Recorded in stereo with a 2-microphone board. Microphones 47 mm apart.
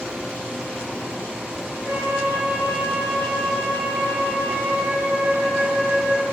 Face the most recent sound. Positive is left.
turn(degrees=-70)  # may be behind; listen again after turning